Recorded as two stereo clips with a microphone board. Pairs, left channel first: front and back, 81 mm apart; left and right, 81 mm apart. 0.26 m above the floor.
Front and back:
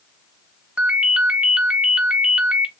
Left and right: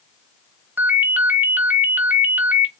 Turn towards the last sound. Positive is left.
turn(degrees=-125)